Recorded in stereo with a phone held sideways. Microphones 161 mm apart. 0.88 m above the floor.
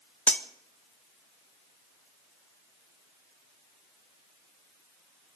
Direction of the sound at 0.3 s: 5° left (ahead or behind).